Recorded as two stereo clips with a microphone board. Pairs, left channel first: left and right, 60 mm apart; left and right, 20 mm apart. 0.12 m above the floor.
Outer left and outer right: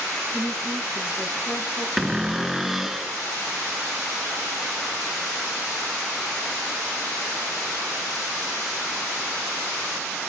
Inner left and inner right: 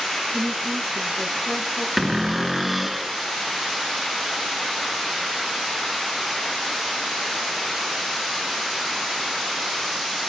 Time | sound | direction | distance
0.3 | a woman speaking | 15° right (ahead or behind) | 5 m
2.0 | a cupboard door | 5° right (ahead or behind) | 0.6 m